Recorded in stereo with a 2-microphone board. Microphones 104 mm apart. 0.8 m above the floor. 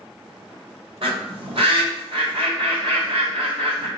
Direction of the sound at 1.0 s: 70° right (ahead or behind).